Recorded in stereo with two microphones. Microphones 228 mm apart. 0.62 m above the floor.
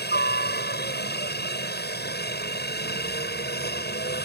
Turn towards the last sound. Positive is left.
turn(degrees=45)  # may be behind; listen again after turning